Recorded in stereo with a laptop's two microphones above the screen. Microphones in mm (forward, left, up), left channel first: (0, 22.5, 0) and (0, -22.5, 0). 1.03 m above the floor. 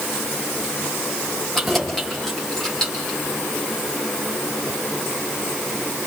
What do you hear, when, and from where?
1.6 s keys jangling: 5° left (ahead or behind), 3 m; by 3.2 s 15° left (ahead or behind), 4.5 m